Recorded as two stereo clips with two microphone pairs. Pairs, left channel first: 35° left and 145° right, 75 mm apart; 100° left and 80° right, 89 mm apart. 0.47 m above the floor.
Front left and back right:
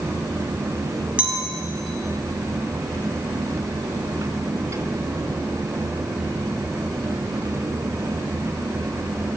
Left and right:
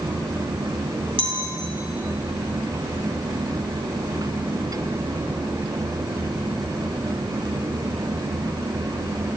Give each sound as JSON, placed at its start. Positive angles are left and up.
{"t": 1.2, "sound": "a clink", "azimuth_deg": -70, "distance_m": 1.9}